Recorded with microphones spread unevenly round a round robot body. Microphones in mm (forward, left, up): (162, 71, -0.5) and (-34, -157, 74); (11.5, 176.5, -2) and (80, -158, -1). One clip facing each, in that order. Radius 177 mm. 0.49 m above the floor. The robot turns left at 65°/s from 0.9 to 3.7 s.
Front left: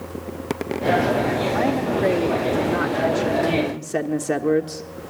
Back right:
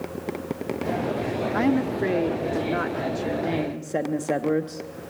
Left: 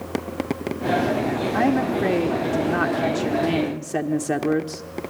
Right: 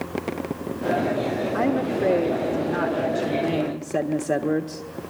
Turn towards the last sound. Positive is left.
turn(degrees=40)